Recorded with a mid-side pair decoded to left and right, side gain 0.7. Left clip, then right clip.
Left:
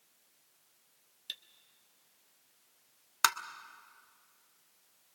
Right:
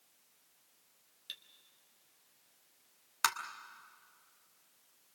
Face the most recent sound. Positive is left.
turn(degrees=20)